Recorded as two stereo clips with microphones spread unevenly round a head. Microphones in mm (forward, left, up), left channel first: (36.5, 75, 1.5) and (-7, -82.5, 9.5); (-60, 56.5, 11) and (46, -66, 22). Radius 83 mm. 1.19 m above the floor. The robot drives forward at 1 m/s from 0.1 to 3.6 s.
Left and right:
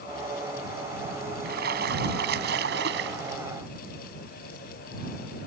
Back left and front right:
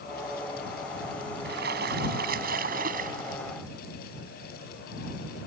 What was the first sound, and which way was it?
A splash, 75° right.